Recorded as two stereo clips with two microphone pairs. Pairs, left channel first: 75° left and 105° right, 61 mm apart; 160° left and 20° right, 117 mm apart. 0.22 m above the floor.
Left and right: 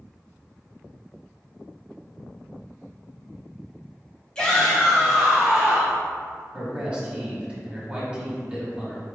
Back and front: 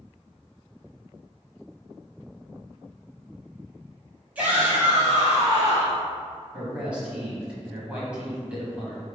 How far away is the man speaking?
About 1.1 m.